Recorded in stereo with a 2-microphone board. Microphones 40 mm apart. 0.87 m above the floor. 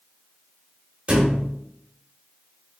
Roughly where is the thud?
Right.